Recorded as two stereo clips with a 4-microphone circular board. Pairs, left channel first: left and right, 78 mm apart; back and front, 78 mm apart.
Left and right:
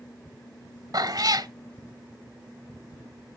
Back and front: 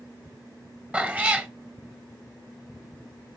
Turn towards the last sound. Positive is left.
turn(degrees=-70)